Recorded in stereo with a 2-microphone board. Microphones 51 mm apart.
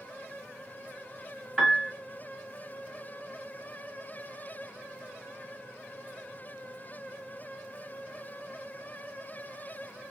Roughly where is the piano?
Centre.